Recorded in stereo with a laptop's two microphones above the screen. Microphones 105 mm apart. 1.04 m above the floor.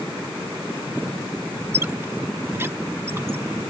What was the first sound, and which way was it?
A squeak, 25° right (ahead or behind).